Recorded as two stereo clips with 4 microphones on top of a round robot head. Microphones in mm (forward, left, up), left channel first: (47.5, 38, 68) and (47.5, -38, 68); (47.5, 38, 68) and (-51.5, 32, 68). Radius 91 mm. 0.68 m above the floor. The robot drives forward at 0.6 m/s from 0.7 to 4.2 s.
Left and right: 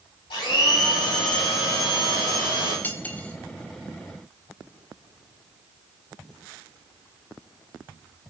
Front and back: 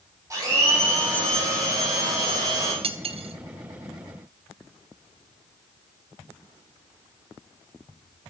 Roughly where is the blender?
Behind left.